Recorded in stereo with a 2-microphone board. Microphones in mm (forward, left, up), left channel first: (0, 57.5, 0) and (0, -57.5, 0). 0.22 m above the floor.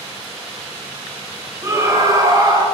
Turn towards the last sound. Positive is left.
turn(degrees=-35)  # may be behind; listen again after turning